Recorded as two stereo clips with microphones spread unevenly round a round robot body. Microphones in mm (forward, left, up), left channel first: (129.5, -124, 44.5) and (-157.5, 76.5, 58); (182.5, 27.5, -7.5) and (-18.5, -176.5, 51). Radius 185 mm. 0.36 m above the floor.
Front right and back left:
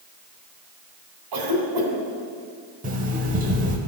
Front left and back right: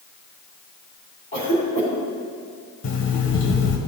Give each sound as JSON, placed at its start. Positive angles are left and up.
{"t": 1.3, "sound": "a cough", "azimuth_deg": 120, "distance_m": 3.0}
{"t": 2.8, "sound": "an alarm clock", "azimuth_deg": 80, "distance_m": 1.0}